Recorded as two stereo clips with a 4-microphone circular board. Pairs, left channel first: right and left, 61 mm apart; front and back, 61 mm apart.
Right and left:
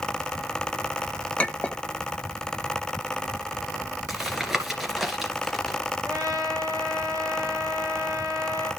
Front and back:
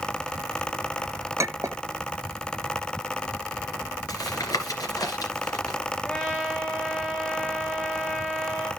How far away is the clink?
About 1.0 m.